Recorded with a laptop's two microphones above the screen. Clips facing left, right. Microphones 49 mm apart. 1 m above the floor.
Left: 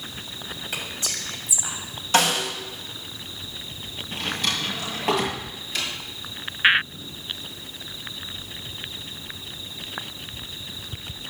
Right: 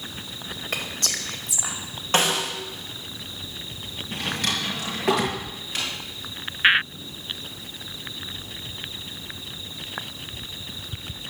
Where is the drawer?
65° right (ahead or behind), 6 m.